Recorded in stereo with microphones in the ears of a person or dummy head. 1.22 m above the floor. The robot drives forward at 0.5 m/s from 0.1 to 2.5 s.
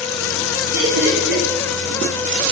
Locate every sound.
0.7 s laughter: 60° right (ahead or behind), 3 m; by 1.4 s 55° right (ahead or behind), 3 m